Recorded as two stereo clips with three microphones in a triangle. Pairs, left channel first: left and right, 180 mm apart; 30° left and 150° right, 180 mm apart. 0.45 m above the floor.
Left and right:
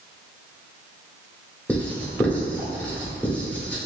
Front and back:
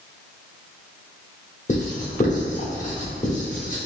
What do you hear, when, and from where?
1.7 s writing: 10° left, 1.0 m